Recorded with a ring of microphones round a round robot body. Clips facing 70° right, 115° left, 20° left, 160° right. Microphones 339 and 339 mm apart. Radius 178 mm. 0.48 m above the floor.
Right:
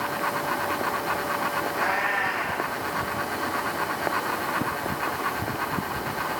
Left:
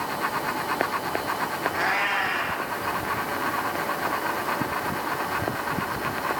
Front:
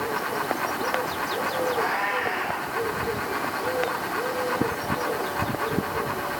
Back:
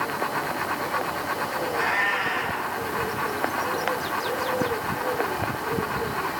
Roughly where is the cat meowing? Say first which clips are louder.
Right 1 dB, front 2 dB; behind left.